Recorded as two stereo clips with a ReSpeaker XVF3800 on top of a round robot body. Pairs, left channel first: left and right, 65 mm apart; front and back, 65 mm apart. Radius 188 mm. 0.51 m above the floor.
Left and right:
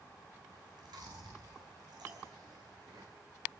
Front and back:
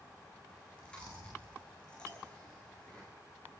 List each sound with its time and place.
0.5 s chewing: 75° right, 10 m
2.1 s a clink: 140° right, 4 m